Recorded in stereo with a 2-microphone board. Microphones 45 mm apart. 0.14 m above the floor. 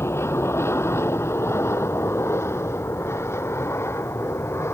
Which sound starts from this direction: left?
An aircraft, at 0.0 s.